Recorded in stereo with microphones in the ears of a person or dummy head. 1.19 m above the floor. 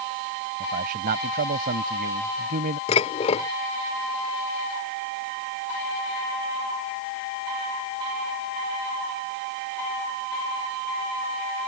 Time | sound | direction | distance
0.6 | a man speaking | 55° right (ahead or behind) | ?
2.9 | dishes clattering | 35° left (ahead or behind) | ?